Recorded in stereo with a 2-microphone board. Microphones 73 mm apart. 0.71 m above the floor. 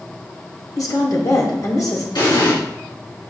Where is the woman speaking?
55° left (ahead or behind), 1.7 m.